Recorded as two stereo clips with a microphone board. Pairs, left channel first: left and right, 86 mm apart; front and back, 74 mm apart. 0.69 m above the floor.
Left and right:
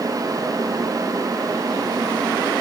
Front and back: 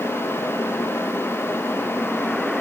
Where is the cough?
No cough in this recording.